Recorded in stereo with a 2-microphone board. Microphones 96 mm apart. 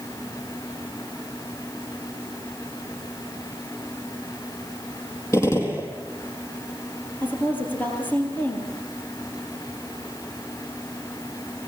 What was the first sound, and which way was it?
A gunshot, 30° left (ahead or behind).